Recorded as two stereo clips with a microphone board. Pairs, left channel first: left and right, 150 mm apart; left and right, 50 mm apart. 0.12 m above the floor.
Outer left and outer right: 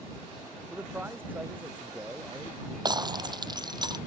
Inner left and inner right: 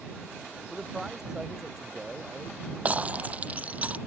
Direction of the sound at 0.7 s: 10° right (ahead or behind).